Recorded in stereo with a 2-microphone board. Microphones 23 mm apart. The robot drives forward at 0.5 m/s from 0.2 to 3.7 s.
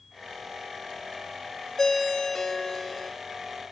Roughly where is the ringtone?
Centre.